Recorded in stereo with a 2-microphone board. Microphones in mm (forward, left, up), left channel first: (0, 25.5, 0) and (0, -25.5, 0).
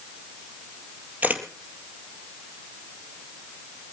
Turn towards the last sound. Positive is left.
turn(degrees=-30)  # may be behind; listen again after turning